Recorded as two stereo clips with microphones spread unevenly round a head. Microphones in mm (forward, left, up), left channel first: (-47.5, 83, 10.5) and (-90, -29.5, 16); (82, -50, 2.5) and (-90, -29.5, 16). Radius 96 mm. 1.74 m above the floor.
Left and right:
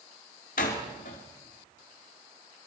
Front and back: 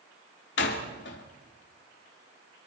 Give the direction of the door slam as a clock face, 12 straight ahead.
11 o'clock.